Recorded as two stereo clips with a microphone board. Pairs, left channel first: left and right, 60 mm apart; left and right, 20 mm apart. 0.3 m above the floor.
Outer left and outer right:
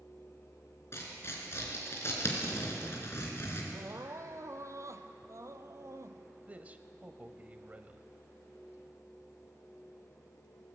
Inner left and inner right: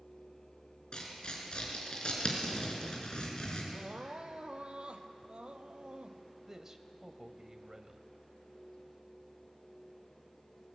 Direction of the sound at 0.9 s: 45° left (ahead or behind).